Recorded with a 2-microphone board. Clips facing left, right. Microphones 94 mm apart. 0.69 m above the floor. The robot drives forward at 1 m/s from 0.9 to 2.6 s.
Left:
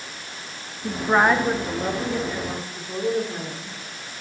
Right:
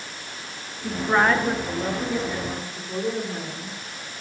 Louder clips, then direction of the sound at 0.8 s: Left 2 dB; 15° left (ahead or behind).